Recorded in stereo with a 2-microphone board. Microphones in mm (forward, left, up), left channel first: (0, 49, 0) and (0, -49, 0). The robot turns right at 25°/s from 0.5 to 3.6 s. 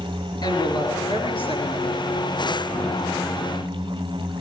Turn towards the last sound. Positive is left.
turn(degrees=130)